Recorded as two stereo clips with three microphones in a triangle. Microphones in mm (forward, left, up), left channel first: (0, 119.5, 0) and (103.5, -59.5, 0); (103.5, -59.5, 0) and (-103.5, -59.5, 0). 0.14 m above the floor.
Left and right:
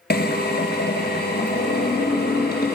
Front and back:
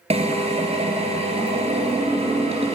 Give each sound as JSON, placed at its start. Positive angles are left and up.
{"t": 0.1, "sound": "a drill", "azimuth_deg": 130, "distance_m": 1.3}